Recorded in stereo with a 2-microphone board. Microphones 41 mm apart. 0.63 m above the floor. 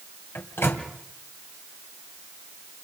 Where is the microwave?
75° left (ahead or behind), 3 m.